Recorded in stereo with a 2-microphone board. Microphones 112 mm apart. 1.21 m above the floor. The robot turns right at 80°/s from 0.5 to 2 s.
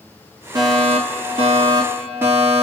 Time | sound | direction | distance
0.6 | a fire alarm | 140° right | 5 m